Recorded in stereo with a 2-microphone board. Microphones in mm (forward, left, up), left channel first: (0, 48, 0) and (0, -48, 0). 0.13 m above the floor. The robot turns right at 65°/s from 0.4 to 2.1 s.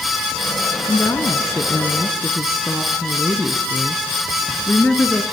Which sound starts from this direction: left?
A woman speaking, at 0.9 s.